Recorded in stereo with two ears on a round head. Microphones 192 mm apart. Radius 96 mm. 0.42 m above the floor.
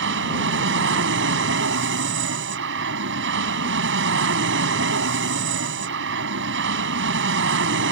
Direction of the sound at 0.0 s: 60° right (ahead or behind).